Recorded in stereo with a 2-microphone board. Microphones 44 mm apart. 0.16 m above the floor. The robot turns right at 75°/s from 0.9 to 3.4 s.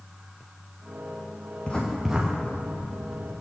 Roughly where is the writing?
Left.